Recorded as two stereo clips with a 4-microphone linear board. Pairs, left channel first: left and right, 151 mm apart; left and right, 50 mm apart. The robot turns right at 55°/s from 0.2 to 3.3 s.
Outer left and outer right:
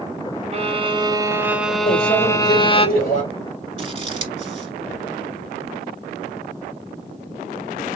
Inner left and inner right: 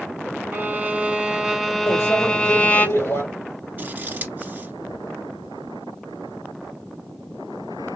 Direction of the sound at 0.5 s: 70° right.